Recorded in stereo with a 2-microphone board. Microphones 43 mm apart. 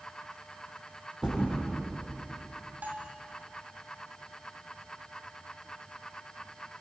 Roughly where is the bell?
Right.